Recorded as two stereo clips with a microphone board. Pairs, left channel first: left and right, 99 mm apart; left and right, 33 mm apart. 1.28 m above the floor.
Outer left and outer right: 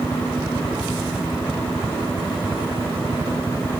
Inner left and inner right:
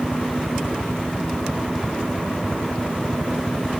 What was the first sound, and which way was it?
A helicopter, 20° right (ahead or behind).